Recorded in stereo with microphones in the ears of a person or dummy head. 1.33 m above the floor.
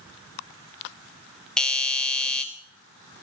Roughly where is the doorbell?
Centre.